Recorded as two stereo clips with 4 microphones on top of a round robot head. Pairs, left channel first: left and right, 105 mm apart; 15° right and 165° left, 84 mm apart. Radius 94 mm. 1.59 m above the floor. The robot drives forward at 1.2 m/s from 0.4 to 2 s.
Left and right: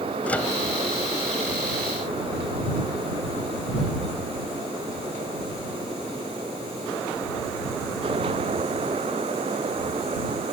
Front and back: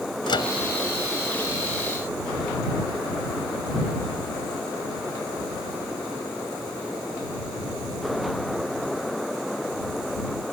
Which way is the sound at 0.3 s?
10° left.